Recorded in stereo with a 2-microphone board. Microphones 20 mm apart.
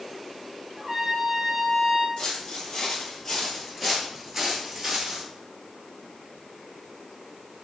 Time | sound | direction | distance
0.8 | a trumpet | 30° right (ahead or behind) | 0.6 m
2.2 | footsteps | 45° left (ahead or behind) | 1.6 m